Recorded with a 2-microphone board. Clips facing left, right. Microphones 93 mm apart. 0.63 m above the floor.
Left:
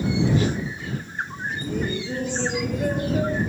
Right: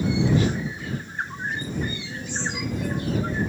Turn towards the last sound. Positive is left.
turn(degrees=55)  # may be behind; listen again after turning